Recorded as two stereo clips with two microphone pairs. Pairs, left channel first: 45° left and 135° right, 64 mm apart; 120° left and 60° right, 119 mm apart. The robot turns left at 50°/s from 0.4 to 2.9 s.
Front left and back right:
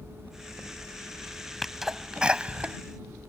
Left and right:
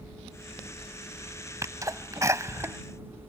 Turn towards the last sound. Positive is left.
turn(degrees=-110)